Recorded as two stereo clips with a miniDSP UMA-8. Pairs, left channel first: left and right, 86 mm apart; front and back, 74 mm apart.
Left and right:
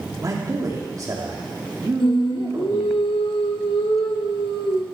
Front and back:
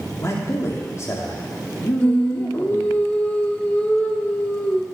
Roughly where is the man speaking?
Ahead right.